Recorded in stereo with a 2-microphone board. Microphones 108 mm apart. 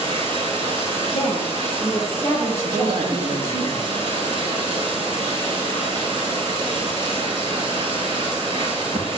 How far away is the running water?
About 8.5 m.